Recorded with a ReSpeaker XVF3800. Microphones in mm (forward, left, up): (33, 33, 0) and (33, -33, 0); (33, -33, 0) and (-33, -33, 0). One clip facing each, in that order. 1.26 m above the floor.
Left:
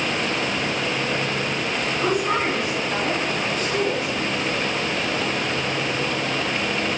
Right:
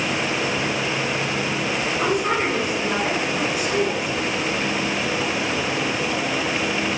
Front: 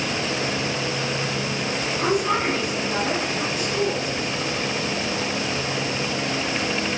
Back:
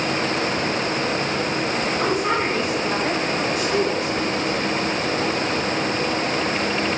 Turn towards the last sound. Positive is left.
turn(degrees=175)